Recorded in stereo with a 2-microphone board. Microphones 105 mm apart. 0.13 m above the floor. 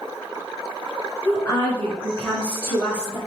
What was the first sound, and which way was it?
A woman speaking, 15° left (ahead or behind).